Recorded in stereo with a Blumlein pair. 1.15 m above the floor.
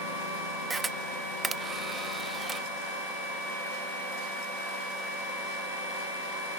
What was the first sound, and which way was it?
A camera shutter, 10° right.